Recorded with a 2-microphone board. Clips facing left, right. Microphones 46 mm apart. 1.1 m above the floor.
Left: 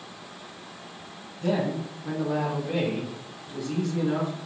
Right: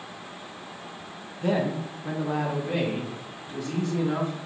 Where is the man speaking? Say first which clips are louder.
Right 1 dB; 20° right (ahead or behind), 0.6 m; by 4.3 s 35° right (ahead or behind), 2 m.